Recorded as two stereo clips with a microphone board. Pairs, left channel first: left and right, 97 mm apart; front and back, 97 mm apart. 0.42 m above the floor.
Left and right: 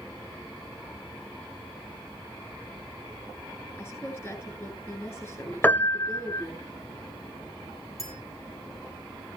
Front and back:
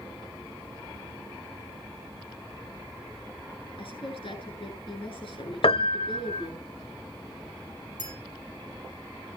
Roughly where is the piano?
Ahead.